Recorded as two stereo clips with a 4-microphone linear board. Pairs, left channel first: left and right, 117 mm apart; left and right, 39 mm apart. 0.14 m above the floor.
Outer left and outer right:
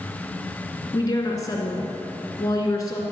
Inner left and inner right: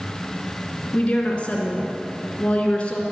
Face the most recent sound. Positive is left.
turn(degrees=30)  # may be behind; listen again after turning